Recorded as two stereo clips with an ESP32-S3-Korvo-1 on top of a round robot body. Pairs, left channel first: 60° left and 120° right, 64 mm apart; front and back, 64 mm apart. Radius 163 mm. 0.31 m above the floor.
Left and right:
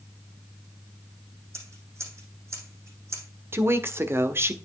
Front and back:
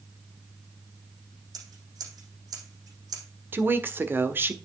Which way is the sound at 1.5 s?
165° right.